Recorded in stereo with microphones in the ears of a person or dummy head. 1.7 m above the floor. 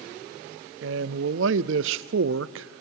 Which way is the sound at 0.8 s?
75° right (ahead or behind).